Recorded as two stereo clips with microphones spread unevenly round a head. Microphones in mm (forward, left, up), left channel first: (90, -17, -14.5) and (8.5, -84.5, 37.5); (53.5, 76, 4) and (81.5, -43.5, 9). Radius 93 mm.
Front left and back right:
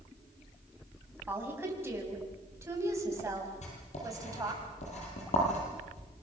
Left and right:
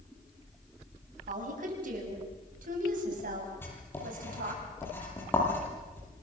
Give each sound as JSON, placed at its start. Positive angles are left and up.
{"t": 1.3, "sound": "a woman speaking", "azimuth_deg": -70, "distance_m": 8.0}
{"t": 3.6, "sound": "writing", "azimuth_deg": 30, "distance_m": 10.0}